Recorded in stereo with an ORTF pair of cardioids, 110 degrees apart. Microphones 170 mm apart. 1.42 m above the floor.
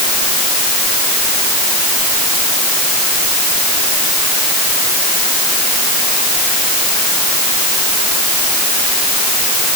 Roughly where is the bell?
No bell in this recording.